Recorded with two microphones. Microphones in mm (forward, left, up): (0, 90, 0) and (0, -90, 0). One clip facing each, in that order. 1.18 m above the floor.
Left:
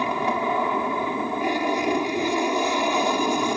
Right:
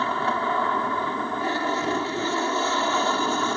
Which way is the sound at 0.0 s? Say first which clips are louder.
Left 2 dB; 15° left (ahead or behind).